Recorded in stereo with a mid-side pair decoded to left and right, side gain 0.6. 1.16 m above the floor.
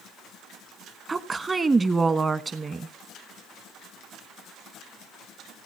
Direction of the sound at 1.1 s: 25° right.